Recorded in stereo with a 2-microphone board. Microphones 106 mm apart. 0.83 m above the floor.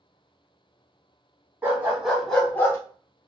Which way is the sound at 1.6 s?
20° right (ahead or behind).